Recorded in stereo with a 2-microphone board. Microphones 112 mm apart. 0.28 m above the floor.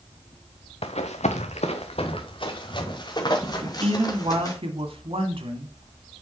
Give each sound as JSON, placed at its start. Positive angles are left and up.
{"t": 0.8, "sound": "running footsteps", "side_deg": 65, "distance_m": 1.3}
{"t": 3.6, "sound": "a man speaking", "side_deg": -55, "distance_m": 1.9}